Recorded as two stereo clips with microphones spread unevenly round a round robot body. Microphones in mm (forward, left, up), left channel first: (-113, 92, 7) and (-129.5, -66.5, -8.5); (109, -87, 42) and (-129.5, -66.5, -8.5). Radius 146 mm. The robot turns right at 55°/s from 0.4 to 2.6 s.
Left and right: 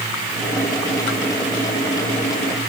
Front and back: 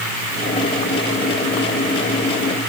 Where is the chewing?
No chewing in this recording.